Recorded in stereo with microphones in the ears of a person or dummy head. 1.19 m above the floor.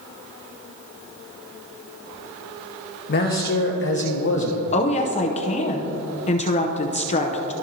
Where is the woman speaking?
35° left (ahead or behind), 0.7 m.